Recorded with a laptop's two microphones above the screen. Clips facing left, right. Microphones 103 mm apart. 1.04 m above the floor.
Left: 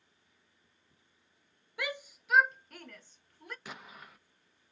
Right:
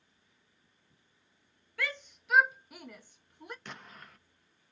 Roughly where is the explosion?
Centre.